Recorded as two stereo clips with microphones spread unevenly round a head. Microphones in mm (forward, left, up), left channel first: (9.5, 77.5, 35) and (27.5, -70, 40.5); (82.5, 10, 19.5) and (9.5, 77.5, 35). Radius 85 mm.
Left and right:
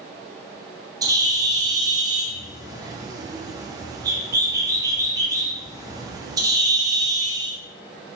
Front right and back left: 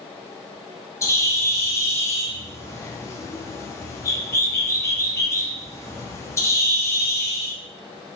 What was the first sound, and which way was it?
A bird, 30° right.